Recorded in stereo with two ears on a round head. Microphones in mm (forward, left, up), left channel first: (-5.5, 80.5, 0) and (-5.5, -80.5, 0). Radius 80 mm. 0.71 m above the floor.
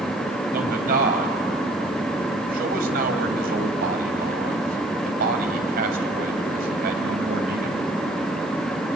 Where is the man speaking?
55° right (ahead or behind), 3.5 m.